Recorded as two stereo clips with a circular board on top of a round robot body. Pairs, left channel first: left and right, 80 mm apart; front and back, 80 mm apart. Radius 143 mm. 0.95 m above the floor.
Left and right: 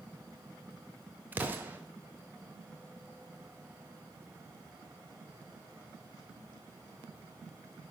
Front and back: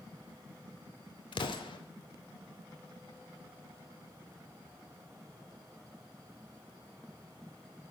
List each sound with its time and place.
1.3 s an explosion: 20° right, 0.9 m